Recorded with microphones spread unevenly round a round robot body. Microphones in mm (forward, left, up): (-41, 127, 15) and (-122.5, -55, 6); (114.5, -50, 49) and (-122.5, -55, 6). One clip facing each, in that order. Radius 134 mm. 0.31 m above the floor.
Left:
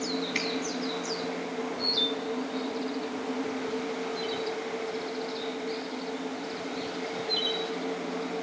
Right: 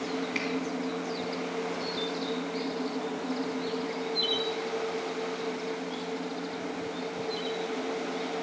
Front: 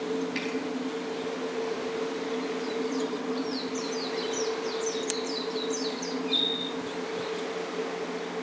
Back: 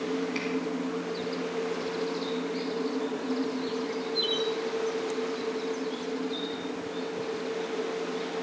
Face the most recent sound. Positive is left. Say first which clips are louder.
# even, even
turn(degrees=90)